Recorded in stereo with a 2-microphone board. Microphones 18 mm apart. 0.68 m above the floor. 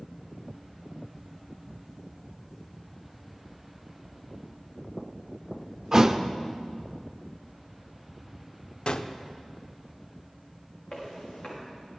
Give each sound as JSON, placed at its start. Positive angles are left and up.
{"t": 5.9, "sound": "a thud", "side_deg": -30, "distance_m": 0.5}
{"t": 8.9, "sound": "a gunshot", "side_deg": 55, "distance_m": 0.5}
{"t": 10.9, "sound": "footsteps", "side_deg": 45, "distance_m": 5.5}